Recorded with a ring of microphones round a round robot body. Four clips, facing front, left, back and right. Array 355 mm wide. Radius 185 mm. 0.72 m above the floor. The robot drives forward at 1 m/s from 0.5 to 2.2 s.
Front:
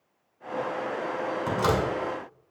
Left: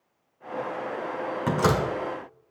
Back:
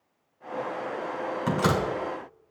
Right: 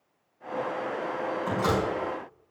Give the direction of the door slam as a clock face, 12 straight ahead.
9 o'clock.